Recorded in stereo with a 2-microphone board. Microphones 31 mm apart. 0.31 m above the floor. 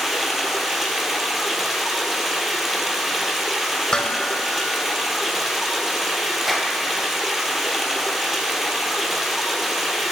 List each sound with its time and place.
0.0 s running water: 10° right (ahead or behind), 1.0 m
3.9 s dishes clattering: 25° left (ahead or behind), 0.7 m
6.5 s a clap: centre (ahead or behind), 1.0 m